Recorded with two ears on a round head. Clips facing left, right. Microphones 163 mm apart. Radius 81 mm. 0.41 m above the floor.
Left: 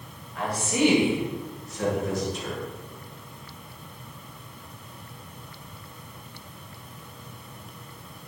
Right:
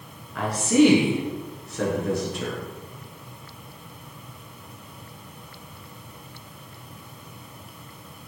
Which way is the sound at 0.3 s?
60° right (ahead or behind).